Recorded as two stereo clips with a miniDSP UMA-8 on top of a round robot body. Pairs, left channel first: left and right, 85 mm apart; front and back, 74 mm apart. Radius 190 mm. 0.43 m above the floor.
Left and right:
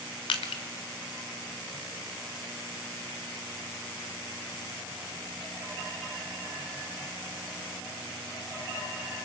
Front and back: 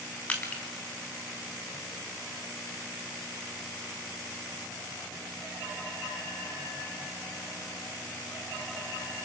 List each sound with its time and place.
0.3 s crushing: 75° left, 0.5 m